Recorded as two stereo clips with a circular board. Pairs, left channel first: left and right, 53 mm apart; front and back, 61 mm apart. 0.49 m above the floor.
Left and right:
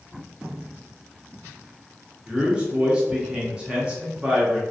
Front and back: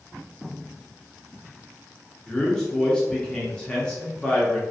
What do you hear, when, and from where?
2.3 s a man speaking: 55° right, 0.8 m